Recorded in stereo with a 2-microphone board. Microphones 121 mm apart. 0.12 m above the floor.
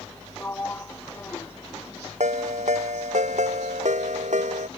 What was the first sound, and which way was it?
A sliding door, 15° left (ahead or behind).